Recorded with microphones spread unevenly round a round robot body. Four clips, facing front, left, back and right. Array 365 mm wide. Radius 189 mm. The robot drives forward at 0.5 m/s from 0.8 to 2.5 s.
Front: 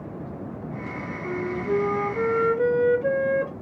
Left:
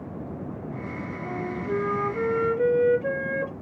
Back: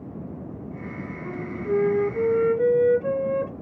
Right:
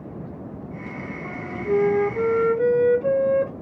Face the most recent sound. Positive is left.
turn(degrees=-110)